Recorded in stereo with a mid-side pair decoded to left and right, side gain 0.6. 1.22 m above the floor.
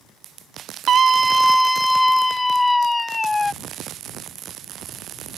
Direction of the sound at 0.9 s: 50° right.